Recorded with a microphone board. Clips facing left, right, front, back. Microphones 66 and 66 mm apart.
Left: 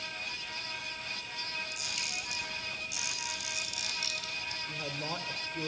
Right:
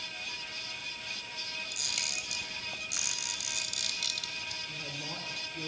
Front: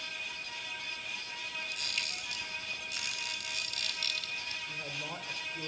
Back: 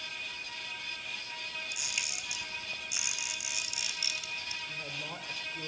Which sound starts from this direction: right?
A camera shutter, at 1.7 s.